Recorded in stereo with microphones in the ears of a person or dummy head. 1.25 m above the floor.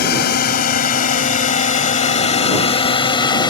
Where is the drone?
50° left (ahead or behind); by 3.5 s 25° left (ahead or behind).